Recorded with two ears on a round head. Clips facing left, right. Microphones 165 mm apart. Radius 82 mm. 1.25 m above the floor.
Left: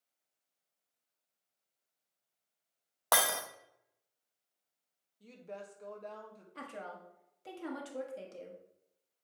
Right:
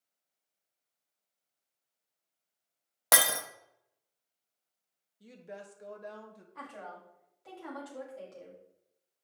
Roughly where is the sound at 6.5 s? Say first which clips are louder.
Left 1 dB; left.